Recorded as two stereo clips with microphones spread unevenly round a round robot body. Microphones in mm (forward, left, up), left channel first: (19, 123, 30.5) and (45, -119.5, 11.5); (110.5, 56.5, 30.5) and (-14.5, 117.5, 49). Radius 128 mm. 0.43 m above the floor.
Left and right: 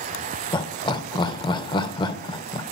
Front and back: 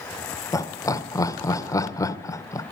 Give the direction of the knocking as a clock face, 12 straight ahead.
I don't hear knocking.